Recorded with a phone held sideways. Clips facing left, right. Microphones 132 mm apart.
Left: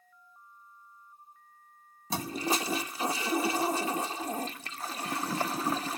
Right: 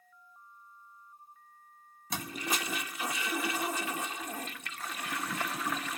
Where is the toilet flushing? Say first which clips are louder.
Left 5 dB; 30° left (ahead or behind), 0.5 m.